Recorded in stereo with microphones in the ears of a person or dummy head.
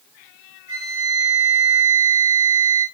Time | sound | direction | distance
0.7 | a flute | 30° left (ahead or behind) | 1.6 m